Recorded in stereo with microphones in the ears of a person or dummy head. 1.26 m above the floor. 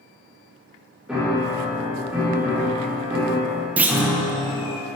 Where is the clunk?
10° right (ahead or behind), 0.6 m.